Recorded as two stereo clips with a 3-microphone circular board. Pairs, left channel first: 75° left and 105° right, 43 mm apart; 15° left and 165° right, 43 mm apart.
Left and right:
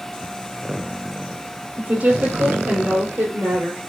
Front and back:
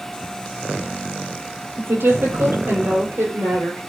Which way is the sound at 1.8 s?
145° right.